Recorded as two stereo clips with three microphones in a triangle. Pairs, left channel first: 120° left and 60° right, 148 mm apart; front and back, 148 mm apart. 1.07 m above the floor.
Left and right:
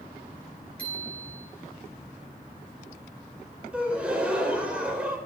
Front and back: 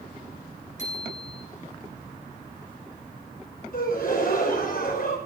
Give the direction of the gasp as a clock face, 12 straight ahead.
11 o'clock.